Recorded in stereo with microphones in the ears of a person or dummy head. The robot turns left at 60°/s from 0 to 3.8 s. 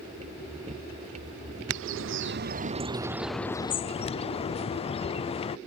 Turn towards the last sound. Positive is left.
turn(degrees=155)